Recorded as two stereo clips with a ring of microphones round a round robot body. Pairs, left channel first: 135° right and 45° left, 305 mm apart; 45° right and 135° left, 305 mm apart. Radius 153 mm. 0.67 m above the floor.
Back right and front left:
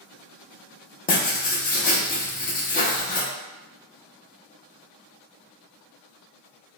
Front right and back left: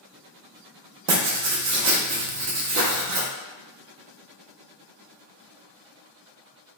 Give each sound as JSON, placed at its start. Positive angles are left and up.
{"t": 1.1, "sound": "writing", "azimuth_deg": 165, "distance_m": 0.6}